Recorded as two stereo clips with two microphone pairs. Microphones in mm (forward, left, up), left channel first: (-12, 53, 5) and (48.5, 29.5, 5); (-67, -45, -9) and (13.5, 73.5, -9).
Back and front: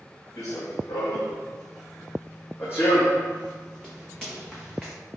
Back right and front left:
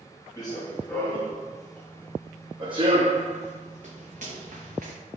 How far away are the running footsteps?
About 1.6 m.